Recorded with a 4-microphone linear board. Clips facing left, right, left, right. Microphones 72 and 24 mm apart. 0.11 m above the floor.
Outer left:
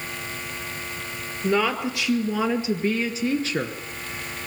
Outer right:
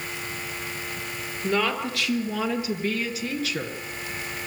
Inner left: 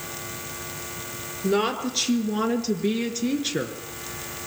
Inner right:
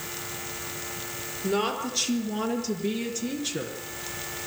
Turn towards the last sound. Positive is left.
turn(degrees=30)  # may be behind; listen again after turning